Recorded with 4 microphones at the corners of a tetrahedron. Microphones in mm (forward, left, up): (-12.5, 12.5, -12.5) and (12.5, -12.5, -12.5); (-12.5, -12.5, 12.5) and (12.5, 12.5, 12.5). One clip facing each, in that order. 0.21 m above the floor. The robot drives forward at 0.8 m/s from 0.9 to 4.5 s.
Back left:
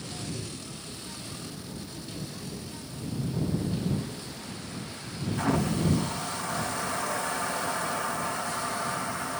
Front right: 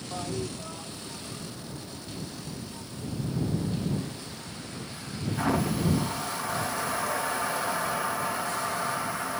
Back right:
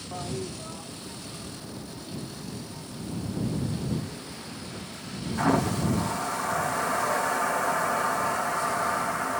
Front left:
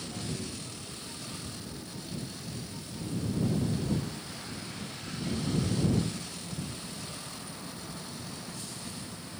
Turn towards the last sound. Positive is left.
turn(degrees=-130)